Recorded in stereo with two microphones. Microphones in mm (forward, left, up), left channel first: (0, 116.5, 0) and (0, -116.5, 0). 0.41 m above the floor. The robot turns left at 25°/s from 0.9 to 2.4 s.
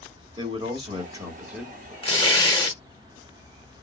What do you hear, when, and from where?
0.4 s a man speaking: 20° right (ahead or behind), 1.4 m; by 1.9 s centre (ahead or behind), 1.4 m
2.0 s tearing paper: 25° left (ahead or behind), 0.8 m; by 2.8 s 20° left (ahead or behind), 0.8 m